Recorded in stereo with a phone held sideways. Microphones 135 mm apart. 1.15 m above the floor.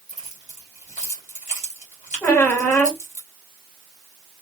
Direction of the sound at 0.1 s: 70° left (ahead or behind).